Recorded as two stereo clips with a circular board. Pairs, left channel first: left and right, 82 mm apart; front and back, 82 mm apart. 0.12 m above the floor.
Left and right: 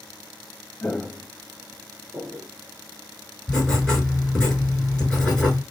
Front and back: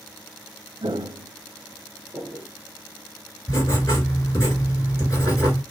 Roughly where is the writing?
Ahead.